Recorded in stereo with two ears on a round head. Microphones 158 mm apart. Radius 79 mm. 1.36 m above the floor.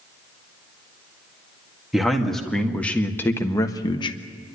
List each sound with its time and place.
1.9 s a man speaking: centre (ahead or behind), 2 m; by 4.2 s 30° left (ahead or behind), 1.2 m